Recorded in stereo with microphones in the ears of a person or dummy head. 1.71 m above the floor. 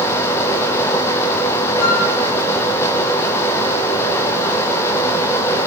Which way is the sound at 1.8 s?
80° left.